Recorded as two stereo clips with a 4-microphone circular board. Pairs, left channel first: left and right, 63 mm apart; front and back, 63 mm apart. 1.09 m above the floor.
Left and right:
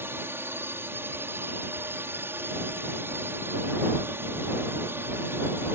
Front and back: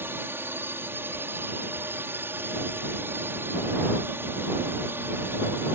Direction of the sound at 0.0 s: 135° right.